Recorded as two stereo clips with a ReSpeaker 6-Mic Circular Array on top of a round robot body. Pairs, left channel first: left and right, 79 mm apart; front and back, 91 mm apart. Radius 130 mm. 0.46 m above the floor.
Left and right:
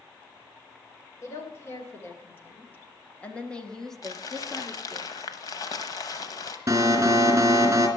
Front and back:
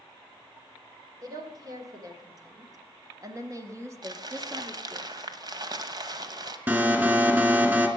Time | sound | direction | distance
1.2 | a woman speaking | 140° left | 3 m
4.0 | crumpling | 135° left | 1.0 m
6.7 | an alarm | 125° right | 2.5 m